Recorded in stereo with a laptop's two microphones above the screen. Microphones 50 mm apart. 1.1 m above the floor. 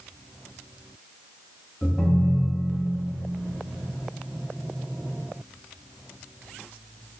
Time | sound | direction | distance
1.8 | a ringtone | 25° left (ahead or behind) | 0.6 m